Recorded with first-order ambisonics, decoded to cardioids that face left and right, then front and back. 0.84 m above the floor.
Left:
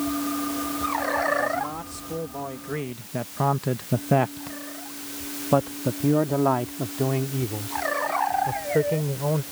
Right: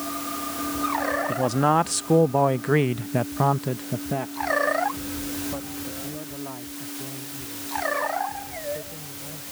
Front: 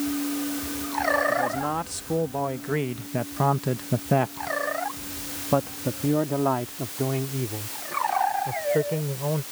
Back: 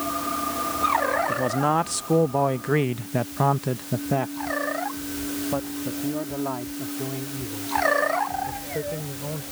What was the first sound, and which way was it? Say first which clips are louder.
A man speaking: right 3 dB, back 2 dB; 115° right.